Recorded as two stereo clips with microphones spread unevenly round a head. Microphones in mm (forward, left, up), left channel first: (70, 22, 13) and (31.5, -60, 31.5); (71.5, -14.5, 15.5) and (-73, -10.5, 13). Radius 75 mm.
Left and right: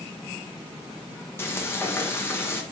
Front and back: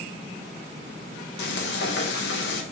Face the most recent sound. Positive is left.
turn(degrees=-5)